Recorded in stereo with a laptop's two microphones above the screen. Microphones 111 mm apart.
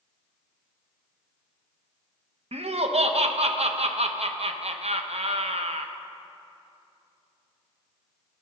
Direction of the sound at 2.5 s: 65° right (ahead or behind).